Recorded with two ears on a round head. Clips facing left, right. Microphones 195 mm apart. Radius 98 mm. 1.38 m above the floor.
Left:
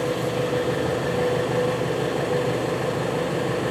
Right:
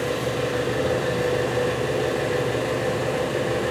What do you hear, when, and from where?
0.0 s an engine running: 25° right (ahead or behind), 5 m